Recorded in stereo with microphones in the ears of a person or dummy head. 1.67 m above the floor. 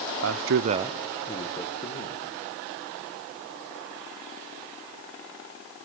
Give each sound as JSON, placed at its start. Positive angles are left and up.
{"t": 0.2, "sound": "a man speaking", "side_deg": -75, "distance_m": 0.9}